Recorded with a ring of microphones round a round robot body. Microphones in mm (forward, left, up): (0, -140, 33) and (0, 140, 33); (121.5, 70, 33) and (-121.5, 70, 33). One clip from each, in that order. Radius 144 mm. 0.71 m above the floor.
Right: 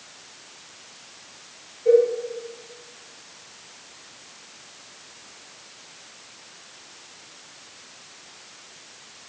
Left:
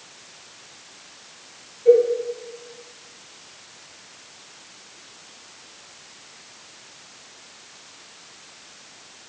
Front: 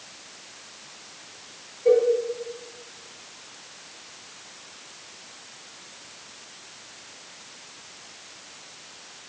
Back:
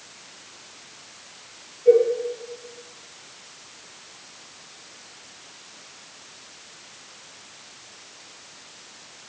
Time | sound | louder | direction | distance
1.9 | a cowbell | left 2 dB, back 3 dB | 10° left | 2.5 m